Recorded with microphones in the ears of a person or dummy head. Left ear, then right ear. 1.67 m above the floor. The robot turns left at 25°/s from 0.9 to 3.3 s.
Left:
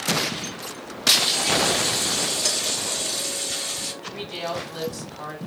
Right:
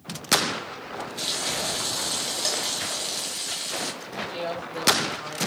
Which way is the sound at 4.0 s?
15° left (ahead or behind).